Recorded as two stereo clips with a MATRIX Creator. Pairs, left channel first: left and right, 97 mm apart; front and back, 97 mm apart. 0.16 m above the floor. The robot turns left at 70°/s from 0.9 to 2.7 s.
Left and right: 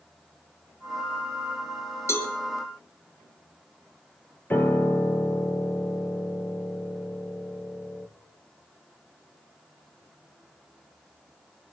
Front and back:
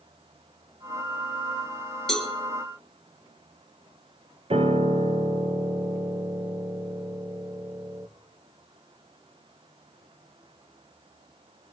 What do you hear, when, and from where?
2.1 s a cowbell: 80° left, 1.5 m; by 2.3 s 65° left, 1.5 m
4.5 s a piano: 160° left, 1.3 m